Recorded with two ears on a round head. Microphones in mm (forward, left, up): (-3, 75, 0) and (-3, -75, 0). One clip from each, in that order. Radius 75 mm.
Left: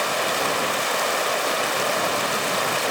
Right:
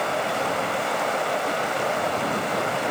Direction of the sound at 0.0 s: 70° left (ahead or behind).